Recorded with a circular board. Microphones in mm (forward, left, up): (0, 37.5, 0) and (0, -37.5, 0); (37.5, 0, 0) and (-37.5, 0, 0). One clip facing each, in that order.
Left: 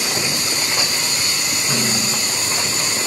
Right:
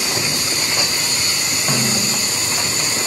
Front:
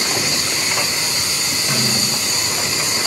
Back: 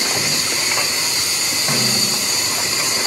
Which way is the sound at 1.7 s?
130° right.